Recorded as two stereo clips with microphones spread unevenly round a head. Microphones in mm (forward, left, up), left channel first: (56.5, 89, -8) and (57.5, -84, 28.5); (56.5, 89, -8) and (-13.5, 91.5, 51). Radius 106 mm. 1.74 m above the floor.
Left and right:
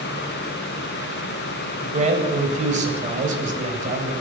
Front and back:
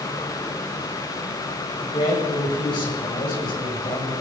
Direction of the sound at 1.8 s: 40° right.